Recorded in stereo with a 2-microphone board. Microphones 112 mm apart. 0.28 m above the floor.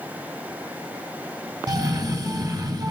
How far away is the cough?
About 1.3 m.